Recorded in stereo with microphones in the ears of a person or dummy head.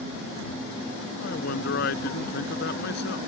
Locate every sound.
1.2 s a man speaking: 65° left (ahead or behind)